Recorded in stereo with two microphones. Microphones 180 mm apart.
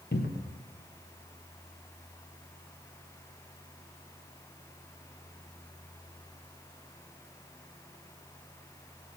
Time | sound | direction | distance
0.1 | a cupboard door | 70° left (ahead or behind) | 0.9 m